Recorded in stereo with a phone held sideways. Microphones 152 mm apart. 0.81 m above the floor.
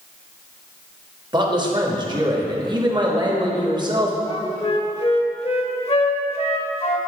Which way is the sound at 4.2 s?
45° left (ahead or behind).